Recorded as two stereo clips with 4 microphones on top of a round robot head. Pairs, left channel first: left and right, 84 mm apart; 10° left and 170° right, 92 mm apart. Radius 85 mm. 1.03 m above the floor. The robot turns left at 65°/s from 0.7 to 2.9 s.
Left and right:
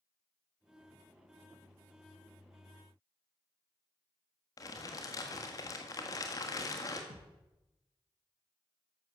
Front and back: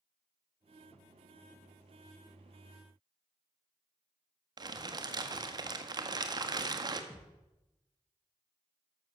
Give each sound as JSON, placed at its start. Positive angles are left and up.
{"t": 4.6, "sound": "crumpling", "azimuth_deg": 145, "distance_m": 1.5}
{"t": 7.1, "sound": "a thud", "azimuth_deg": -95, "distance_m": 3.5}